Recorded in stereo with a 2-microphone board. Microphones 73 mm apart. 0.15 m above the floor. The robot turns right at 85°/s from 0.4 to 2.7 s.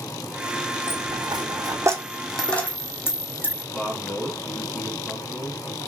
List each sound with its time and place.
0.9 s a dropped coin: 55° right (ahead or behind), 1.2 m; by 3.6 s 30° left (ahead or behind), 1.2 m
3.7 s a man speaking: 5° left (ahead or behind), 1.1 m